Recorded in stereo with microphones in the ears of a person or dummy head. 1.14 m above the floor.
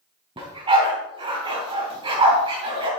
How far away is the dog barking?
About 3 m.